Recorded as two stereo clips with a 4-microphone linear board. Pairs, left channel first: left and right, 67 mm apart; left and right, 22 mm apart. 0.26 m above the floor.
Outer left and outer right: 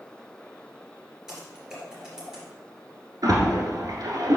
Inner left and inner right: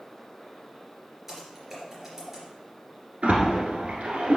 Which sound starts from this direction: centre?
Typing on a keyboard, at 1.3 s.